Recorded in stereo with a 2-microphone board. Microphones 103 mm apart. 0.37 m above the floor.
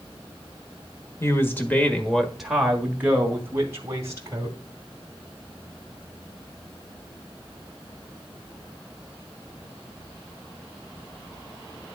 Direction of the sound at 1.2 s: 25° left (ahead or behind).